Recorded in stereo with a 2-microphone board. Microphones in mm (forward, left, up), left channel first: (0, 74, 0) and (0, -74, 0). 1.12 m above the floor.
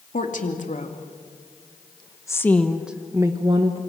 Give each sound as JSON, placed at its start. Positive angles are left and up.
{"t": 0.1, "sound": "a woman speaking", "side_deg": 60, "distance_m": 3.0}